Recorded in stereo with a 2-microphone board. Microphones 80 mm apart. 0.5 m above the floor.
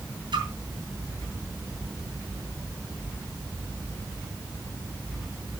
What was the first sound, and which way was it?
A splash, 70° right (ahead or behind).